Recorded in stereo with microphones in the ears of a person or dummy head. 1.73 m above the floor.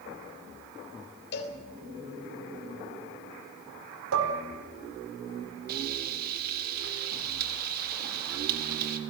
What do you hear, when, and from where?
1.3 s a cowbell: 65° left (ahead or behind), 4 m
4.1 s dishes clattering: 75° right (ahead or behind), 4 m
5.7 s frying: 55° right (ahead or behind), 3 m